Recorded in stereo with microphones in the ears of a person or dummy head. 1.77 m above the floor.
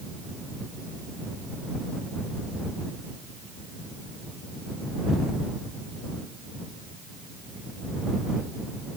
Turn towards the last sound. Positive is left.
No sound to turn to.